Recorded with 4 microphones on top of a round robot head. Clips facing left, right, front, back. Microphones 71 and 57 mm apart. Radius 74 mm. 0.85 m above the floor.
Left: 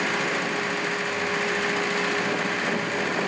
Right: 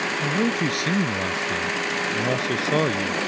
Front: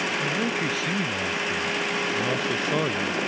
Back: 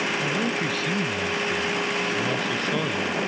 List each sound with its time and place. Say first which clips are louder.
0.2 s a man speaking: right 3 dB, back 1 dB; 90° right; by 3.2 s 75° right